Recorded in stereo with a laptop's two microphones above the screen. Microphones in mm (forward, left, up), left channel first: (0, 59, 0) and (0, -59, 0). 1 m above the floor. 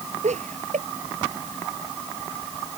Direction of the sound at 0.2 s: 85° right.